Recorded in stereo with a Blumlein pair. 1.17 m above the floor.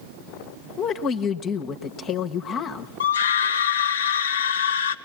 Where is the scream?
55° left, 0.8 m.